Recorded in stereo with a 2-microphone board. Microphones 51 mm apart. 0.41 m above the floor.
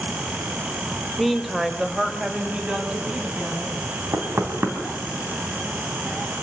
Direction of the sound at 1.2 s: 5° left (ahead or behind).